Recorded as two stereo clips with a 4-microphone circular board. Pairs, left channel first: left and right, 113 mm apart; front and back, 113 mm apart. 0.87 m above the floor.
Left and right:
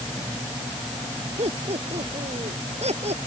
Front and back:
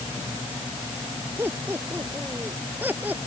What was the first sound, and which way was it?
Laughter, 110° right.